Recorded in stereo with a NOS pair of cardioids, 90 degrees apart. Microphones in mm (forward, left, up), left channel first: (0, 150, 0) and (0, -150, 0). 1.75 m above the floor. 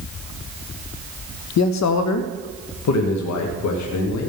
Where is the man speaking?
70° left, 0.5 m; by 4.3 s 75° left, 1.9 m.